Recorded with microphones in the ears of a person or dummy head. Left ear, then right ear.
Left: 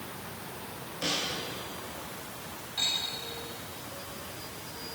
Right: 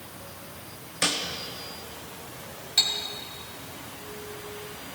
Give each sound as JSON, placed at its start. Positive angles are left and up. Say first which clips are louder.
{"t": 1.0, "sound": "a snare drum", "louder": "right 5 dB", "side_deg": -50, "distance_m": 1.5}
{"t": 2.8, "sound": "cutlery clinking", "louder": "right 6 dB", "side_deg": -70, "distance_m": 3.0}